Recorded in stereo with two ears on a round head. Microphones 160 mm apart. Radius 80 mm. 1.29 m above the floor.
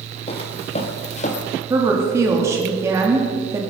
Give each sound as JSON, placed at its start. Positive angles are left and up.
{"t": 0.3, "sound": "footsteps", "side_deg": 35, "distance_m": 1.9}
{"t": 1.7, "sound": "a woman speaking", "side_deg": -15, "distance_m": 3.0}